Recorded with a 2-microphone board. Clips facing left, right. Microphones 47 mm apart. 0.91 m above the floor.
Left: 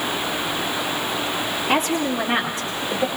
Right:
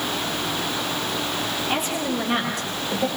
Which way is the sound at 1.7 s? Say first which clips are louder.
Left 6 dB; 50° left (ahead or behind).